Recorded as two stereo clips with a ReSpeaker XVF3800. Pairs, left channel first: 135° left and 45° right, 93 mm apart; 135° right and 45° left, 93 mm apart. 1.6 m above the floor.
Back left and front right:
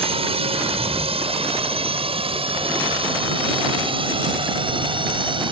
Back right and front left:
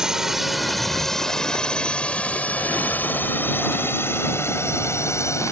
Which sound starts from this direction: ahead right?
A drone, at 0.0 s.